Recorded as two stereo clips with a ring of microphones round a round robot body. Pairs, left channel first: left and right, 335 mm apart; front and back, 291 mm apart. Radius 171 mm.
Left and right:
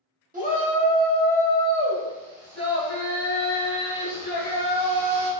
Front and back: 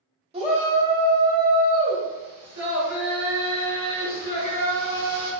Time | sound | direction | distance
0.3 | a shout | 130° right | 1.4 m